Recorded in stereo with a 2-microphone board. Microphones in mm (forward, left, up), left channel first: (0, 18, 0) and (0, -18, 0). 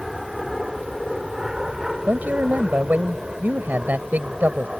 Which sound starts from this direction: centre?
An aircraft, at 0.0 s.